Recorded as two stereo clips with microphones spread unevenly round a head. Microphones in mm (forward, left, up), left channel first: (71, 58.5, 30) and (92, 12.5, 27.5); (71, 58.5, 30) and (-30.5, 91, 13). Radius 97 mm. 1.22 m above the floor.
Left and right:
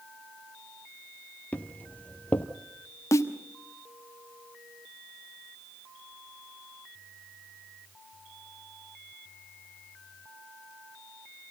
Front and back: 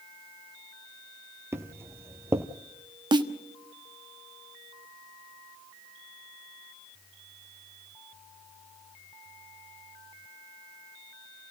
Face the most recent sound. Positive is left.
turn(degrees=110)